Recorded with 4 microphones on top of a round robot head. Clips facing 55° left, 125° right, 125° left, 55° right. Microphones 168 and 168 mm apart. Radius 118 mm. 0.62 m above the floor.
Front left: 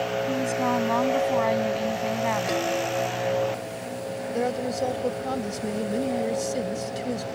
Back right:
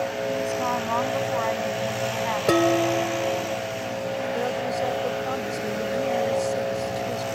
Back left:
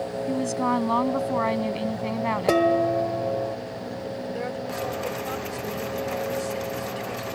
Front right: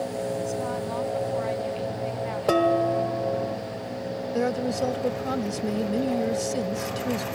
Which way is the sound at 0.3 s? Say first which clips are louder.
Front left 2 dB, back left 3 dB; 110° left.